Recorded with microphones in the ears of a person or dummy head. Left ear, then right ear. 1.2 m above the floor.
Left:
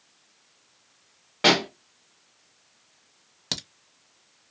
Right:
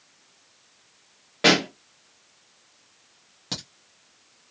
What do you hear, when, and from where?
1.4 s a pop: 15° left (ahead or behind), 1.3 m
3.5 s a crack: 45° left (ahead or behind), 1.1 m